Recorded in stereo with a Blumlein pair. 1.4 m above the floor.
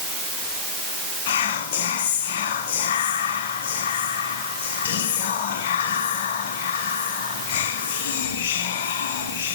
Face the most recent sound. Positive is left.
turn(degrees=55)